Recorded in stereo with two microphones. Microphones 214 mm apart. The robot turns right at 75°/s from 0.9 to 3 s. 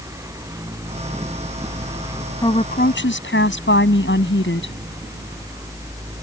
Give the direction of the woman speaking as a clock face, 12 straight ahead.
11 o'clock.